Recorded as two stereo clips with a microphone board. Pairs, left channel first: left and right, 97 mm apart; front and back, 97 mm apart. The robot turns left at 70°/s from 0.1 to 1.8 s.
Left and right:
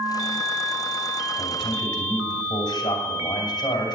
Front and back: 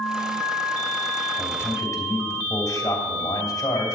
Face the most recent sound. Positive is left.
turn(degrees=50)